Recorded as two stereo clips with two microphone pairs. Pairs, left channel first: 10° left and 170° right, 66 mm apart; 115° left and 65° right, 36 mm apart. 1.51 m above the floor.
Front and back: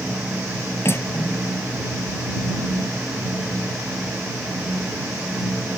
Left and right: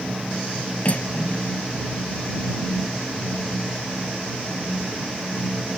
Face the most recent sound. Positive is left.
turn(degrees=65)